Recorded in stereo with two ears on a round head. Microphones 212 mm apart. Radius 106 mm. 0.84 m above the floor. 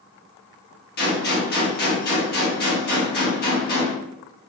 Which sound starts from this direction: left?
A gunshot, at 1.0 s.